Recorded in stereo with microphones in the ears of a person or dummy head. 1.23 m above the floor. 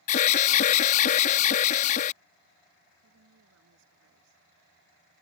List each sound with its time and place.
0.1 s an alarm: 45° left (ahead or behind)
3.0 s a woman speaking: 80° right